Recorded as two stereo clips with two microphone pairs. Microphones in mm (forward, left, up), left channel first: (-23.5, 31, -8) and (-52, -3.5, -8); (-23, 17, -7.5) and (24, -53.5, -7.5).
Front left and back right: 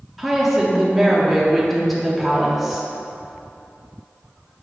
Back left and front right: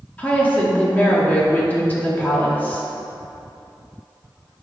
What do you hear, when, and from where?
0.2 s a woman speaking: 150° left, 0.7 m